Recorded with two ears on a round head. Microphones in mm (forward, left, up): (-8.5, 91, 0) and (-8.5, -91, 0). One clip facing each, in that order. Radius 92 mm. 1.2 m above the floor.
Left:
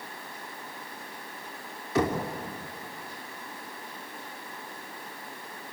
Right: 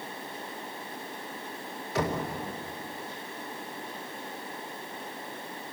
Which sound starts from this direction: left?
Knocking, at 1.9 s.